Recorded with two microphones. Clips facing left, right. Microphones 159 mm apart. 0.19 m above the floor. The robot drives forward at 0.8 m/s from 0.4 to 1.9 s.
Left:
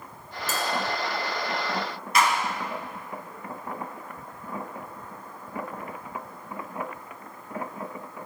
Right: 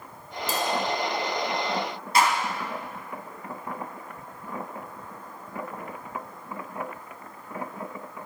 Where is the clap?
35° right (ahead or behind), 1.6 m.